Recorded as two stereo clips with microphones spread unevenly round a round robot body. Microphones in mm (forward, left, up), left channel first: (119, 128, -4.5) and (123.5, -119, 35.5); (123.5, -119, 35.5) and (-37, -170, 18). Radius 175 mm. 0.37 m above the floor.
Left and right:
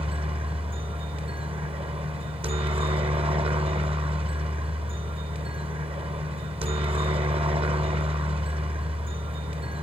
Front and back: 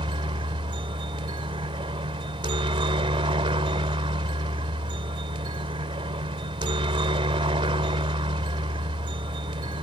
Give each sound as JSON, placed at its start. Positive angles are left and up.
{"t": 0.0, "sound": "a helicopter", "azimuth_deg": -155}